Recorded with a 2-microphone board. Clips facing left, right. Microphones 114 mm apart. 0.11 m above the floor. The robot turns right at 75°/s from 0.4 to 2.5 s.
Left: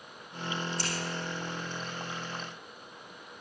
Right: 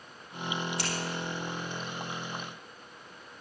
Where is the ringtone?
I don't hear a ringtone.